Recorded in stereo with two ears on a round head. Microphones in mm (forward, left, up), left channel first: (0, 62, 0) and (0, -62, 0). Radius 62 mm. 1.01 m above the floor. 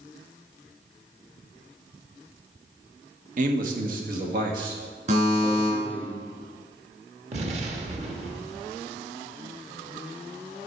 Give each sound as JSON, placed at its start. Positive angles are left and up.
{"t": 3.4, "sound": "a man speaking", "side_deg": -60, "distance_m": 1.2}
{"t": 5.1, "sound": "a buzzer", "side_deg": -55, "distance_m": 3.5}
{"t": 7.3, "sound": "an explosion", "side_deg": -50, "distance_m": 1.3}